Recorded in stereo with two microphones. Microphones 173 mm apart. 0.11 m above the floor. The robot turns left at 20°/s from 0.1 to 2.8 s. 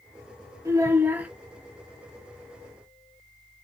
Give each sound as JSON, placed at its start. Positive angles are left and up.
{"t": 0.7, "sound": "a child speaking", "side_deg": -20, "distance_m": 1.4}